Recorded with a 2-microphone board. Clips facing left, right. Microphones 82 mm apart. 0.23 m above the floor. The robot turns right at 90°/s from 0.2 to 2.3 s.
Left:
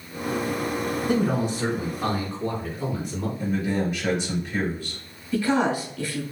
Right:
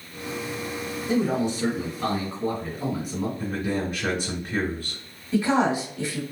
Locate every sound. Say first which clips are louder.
1.1 s a man speaking: right 1 dB; 80° left, 1.9 m; by 3.3 s 170° right, 1.9 m
3.4 s a man speaking: left 6 dB; 35° right (ahead or behind), 1.4 m
5.3 s a woman speaking: right 1 dB; 20° right (ahead or behind), 1.3 m